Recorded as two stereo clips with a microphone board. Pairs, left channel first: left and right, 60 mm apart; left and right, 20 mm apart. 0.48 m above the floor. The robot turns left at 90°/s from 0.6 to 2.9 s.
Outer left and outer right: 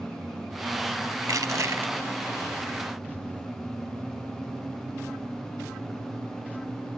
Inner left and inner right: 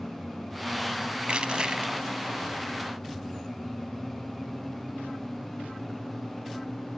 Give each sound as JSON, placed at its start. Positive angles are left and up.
{"t": 1.2, "sound": "crushing", "azimuth_deg": -75, "distance_m": 0.8}